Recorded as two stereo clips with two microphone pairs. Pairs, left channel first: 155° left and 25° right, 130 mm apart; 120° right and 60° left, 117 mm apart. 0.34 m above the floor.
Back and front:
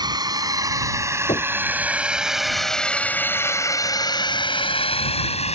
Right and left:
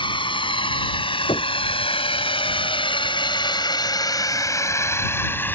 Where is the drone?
80° right; by 5.5 s 170° left.